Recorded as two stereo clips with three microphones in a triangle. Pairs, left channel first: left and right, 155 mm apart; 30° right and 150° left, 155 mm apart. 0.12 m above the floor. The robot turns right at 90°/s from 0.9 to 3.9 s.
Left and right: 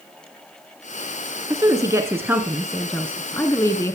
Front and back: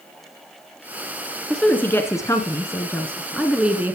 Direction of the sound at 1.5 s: 110° right.